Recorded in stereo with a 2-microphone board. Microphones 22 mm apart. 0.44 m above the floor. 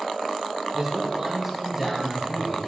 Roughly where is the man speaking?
Right.